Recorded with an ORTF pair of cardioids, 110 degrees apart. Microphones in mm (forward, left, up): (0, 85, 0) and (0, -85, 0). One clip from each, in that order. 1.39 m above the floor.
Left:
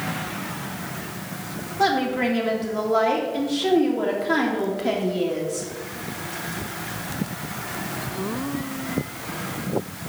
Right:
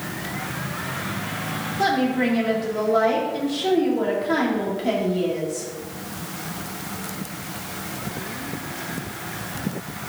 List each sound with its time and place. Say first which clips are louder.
1.8 s a woman speaking: left 1 dB; 15° left, 2.5 m